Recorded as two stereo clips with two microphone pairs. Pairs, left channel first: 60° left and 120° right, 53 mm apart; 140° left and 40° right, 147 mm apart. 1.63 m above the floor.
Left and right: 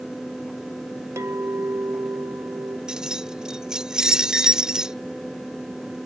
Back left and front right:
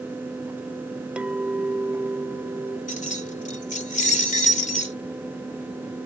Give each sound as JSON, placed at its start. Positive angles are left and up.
{"t": 1.2, "sound": "a clink", "azimuth_deg": -120}
{"t": 2.9, "sound": "keys jangling", "azimuth_deg": 165}